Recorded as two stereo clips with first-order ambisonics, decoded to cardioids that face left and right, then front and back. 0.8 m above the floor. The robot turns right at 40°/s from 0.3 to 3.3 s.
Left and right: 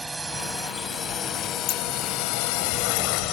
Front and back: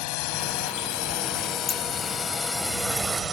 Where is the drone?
10° right; by 3.3 s 110° left.